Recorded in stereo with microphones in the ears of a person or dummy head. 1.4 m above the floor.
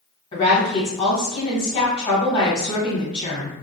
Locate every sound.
0.3 s a woman speaking: 35° left (ahead or behind), 1.2 m